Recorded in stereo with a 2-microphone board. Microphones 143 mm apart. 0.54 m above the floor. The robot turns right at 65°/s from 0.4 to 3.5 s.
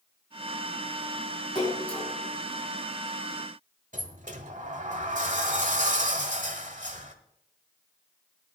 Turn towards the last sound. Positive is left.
turn(degrees=-60)  # may be behind; listen again after turning